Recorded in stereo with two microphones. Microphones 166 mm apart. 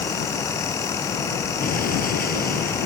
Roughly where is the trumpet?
No trumpet in this recording.